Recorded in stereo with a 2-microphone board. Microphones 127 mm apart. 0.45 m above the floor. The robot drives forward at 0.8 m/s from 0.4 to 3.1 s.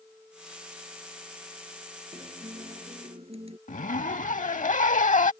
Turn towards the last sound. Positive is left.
turn(degrees=75)  # may be behind; listen again after turning